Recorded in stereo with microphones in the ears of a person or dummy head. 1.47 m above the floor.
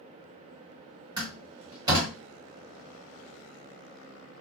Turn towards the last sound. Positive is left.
turn(degrees=-15)  # may be behind; listen again after turning